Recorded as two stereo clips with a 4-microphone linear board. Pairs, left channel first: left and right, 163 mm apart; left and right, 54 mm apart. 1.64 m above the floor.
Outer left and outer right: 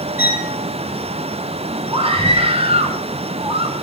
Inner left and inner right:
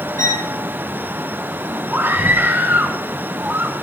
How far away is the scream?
About 7.5 m.